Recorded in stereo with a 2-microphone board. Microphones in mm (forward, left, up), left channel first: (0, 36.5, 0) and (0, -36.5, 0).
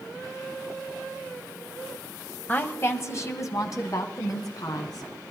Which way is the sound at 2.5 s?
25° left (ahead or behind).